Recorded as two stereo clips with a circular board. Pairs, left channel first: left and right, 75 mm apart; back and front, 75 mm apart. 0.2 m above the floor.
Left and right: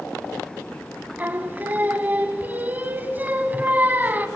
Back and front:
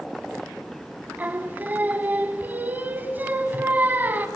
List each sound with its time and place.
1.2 s singing: 45° right, 0.9 m